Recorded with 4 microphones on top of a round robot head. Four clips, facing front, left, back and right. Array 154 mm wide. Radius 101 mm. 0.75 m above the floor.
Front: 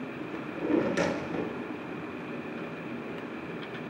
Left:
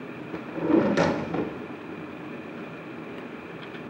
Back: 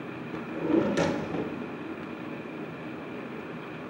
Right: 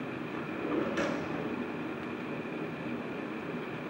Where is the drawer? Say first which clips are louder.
Left 11 dB, back 2 dB; 100° left, 0.5 m.